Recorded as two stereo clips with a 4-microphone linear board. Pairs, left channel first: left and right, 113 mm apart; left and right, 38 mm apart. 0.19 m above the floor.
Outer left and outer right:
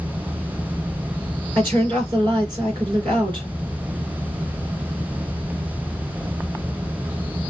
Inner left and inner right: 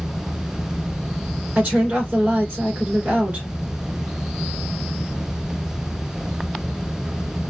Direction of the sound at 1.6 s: 40° right (ahead or behind).